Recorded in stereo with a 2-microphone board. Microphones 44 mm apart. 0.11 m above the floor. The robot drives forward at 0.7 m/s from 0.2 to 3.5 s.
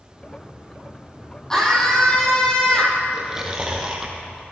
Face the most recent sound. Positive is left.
turn(degrees=-15)  # may be behind; listen again after turning